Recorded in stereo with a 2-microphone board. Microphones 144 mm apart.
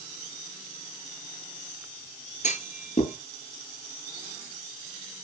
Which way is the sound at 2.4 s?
55° left (ahead or behind).